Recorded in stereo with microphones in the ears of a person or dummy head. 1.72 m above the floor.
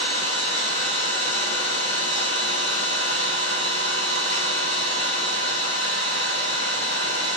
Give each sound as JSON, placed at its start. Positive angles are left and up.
{"t": 0.0, "sound": "an engine running", "side_deg": 60, "distance_m": 1.3}